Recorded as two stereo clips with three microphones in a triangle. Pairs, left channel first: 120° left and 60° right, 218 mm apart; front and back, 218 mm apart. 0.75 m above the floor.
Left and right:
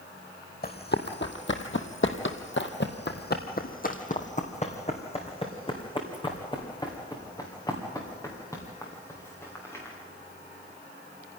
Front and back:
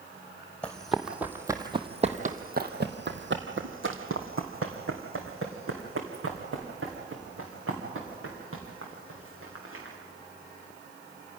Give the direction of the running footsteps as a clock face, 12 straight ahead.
9 o'clock.